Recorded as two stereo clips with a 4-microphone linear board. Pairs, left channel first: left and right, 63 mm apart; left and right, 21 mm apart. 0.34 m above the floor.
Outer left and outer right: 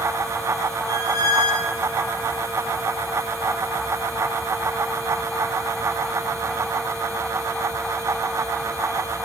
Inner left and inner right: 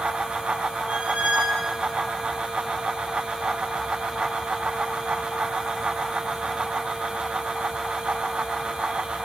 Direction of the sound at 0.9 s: 85° right.